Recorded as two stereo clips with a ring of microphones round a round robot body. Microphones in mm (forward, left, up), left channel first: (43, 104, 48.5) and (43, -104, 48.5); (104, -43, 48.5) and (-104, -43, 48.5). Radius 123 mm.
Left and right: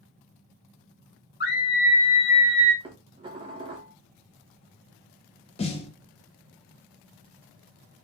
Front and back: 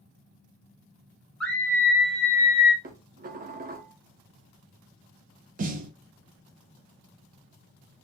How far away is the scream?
About 1.3 m.